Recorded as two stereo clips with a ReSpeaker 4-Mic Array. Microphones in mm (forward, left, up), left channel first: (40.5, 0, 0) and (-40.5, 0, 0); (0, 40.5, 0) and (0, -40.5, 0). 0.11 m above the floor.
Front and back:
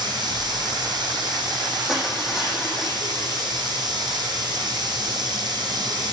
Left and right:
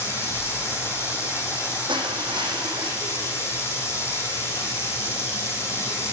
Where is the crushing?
95° right, 3 m.